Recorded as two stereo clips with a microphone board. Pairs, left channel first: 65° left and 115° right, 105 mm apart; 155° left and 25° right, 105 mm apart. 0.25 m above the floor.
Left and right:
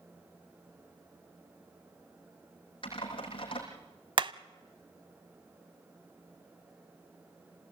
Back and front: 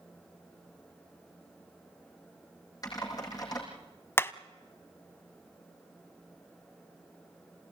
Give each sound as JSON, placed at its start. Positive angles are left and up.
{"t": 2.8, "sound": "typing on a keyboard", "azimuth_deg": 105, "distance_m": 5.5}
{"t": 4.2, "sound": "hammering", "azimuth_deg": -140, "distance_m": 0.5}